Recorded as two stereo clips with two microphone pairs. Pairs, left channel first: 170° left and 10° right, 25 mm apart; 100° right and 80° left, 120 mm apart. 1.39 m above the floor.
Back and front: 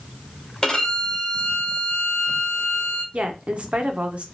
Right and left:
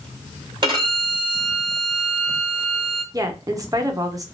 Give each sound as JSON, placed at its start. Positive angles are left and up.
{"t": 0.6, "sound": "a violin", "azimuth_deg": 115, "distance_m": 1.5}
{"t": 3.1, "sound": "a woman speaking", "azimuth_deg": 20, "distance_m": 0.7}